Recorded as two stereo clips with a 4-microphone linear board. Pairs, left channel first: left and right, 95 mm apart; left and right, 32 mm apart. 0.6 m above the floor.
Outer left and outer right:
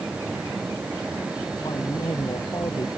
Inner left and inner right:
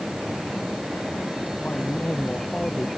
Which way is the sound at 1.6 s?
45° left (ahead or behind).